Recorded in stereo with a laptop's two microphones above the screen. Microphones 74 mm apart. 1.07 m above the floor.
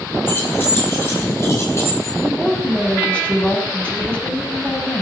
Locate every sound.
0.3 s keys jangling: 30° left (ahead or behind), 9.5 m; by 2.1 s 40° left (ahead or behind), 10.5 m
2.2 s a woman speaking: 15° left (ahead or behind), 6.5 m